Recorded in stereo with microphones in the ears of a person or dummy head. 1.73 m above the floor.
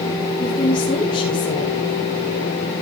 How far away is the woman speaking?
About 3 m.